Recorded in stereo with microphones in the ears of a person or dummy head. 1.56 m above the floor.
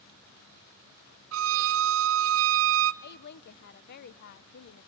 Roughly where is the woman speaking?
Left.